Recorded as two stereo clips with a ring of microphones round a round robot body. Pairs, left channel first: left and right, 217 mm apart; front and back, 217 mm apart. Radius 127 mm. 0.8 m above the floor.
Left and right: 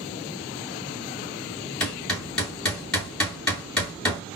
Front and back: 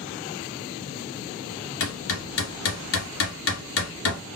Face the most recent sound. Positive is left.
turn(degrees=5)